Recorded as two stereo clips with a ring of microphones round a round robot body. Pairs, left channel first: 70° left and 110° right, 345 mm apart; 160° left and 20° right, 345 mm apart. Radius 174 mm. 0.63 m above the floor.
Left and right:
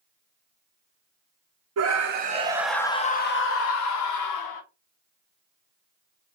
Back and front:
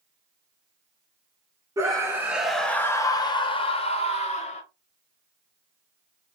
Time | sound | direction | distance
1.8 | a scream | 100° right | 0.7 m